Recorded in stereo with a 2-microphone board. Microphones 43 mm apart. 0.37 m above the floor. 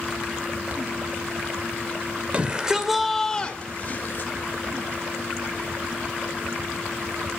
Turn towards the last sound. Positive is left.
turn(degrees=50)  # may be behind; listen again after turning